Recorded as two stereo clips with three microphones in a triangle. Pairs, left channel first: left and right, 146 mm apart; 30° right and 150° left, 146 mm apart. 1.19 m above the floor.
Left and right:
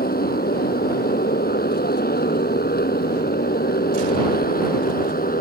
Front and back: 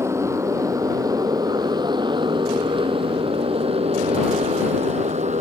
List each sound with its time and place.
0.0 s a motorcycle: 80° left; by 5.4 s 110° left